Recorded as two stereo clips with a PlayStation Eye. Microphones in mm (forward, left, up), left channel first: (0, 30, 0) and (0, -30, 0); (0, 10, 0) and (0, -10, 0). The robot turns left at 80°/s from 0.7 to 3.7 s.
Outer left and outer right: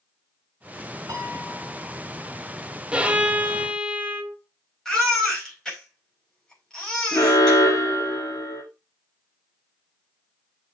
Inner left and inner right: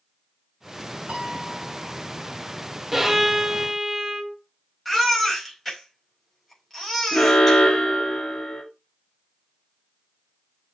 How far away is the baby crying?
About 5 m.